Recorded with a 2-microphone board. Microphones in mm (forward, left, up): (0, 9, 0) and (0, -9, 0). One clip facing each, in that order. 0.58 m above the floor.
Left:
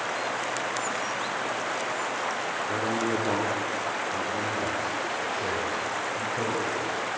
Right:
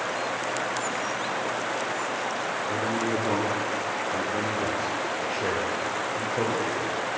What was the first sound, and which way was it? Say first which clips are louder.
A man speaking: even; 30° left (ahead or behind).